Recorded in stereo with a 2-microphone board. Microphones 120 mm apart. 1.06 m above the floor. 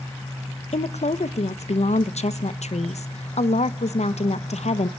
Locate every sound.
0.7 s a woman speaking: 70° left (ahead or behind), 0.5 m